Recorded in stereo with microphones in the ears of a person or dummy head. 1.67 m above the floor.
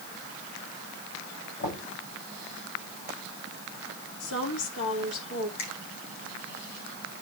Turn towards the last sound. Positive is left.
turn(degrees=75)  # may be behind; listen again after turning